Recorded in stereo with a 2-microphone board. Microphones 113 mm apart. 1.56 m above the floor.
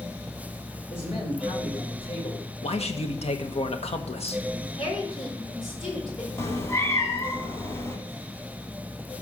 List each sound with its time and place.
0.9 s a man speaking: 55° left (ahead or behind), 5.5 m
2.6 s a man speaking: 65° left (ahead or behind), 1.2 m
4.8 s a woman speaking: 50° left (ahead or behind), 5 m
6.4 s a cat meowing: 25° left (ahead or behind), 1.8 m